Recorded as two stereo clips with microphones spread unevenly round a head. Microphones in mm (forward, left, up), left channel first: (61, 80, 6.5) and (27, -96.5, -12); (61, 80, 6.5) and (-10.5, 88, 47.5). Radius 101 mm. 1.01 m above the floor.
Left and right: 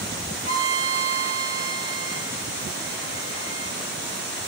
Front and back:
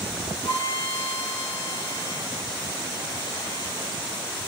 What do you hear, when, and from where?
0.4 s a violin: 35° right, 1.0 m